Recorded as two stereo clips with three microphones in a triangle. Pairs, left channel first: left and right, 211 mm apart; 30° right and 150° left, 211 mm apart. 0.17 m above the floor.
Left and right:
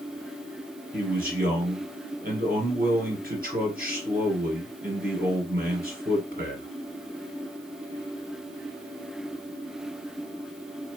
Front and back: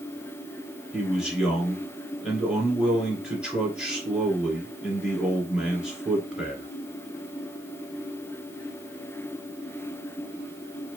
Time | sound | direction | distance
0.9 | a man speaking | 125° right | 2.5 m